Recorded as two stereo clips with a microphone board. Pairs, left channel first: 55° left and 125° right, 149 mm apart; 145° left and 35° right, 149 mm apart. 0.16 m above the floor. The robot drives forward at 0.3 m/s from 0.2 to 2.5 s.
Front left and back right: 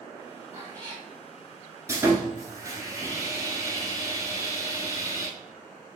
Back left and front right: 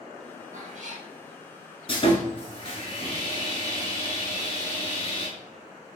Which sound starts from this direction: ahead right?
A cat meowing, at 0.5 s.